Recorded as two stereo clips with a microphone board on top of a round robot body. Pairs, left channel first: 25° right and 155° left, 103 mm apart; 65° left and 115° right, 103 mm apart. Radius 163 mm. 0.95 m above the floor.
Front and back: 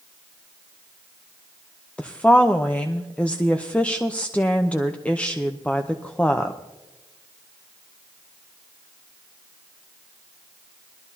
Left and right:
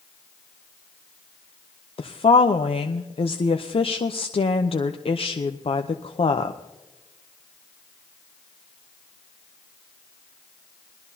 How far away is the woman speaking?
About 0.8 m.